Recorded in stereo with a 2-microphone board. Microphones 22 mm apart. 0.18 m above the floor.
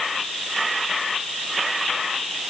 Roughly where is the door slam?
No door slam in this recording.